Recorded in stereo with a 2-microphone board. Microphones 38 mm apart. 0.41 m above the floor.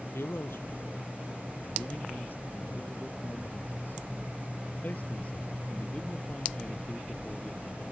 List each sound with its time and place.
0.1 s a man speaking: 85° left; by 7.8 s 25° left (ahead or behind)